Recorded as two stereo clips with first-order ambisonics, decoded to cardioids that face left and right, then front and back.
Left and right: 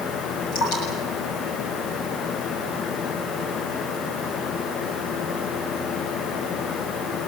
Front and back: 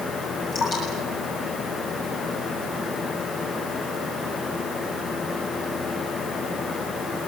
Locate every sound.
0.5 s dripping: 60° left, 8.5 m